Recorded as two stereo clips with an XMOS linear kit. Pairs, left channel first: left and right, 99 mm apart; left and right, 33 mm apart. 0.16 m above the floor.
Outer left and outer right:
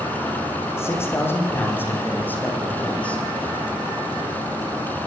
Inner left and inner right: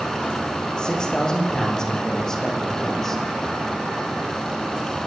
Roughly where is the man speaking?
Left.